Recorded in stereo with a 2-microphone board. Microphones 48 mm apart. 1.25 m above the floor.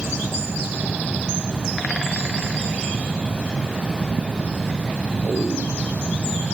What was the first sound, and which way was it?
Only background noise.